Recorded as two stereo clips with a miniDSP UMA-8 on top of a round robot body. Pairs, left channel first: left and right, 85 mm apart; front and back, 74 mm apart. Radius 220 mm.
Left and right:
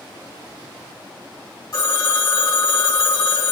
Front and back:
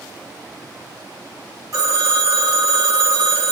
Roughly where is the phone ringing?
Behind left.